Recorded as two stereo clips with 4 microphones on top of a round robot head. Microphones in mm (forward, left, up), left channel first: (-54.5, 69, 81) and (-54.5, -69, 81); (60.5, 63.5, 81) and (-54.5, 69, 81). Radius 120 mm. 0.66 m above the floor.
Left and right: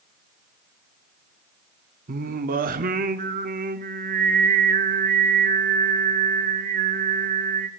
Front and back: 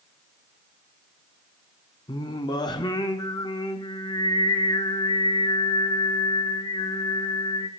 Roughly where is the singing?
Ahead right.